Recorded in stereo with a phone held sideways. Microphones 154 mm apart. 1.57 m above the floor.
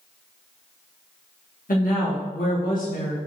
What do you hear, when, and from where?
1.7 s a woman speaking: 65° left (ahead or behind), 1.4 m